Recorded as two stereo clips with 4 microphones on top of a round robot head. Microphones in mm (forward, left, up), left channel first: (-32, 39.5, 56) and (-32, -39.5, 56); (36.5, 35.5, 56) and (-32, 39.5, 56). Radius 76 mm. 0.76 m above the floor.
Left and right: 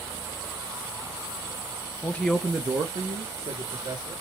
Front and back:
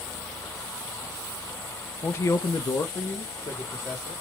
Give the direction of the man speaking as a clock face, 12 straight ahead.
11 o'clock.